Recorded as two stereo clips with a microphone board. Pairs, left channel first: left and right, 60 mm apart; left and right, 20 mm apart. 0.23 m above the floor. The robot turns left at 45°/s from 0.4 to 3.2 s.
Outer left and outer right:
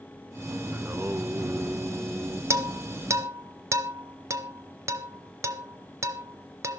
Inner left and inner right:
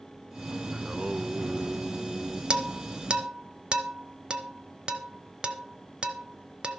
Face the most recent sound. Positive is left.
turn(degrees=-55)  # may be behind; listen again after turning